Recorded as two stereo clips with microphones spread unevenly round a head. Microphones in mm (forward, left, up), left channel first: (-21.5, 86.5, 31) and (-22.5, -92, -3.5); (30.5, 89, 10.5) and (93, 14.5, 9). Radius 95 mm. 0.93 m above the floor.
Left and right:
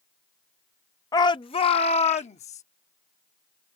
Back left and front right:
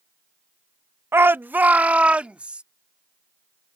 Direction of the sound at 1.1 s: 10° left.